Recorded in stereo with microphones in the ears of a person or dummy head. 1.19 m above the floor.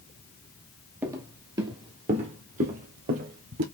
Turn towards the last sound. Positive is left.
turn(degrees=-50)  # may be behind; listen again after turning